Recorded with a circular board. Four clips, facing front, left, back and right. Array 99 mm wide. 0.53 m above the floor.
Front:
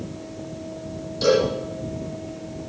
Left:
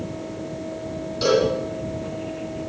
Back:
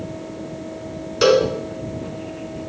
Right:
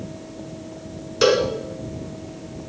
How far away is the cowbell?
About 3 m.